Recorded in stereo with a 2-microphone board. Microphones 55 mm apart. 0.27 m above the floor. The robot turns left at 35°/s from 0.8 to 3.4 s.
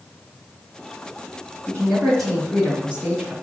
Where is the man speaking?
20° left, 2.5 m; by 3.3 s 35° right, 2.5 m.